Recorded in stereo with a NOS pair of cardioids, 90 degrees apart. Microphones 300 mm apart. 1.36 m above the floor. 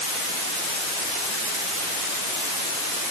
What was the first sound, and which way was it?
Only background noise.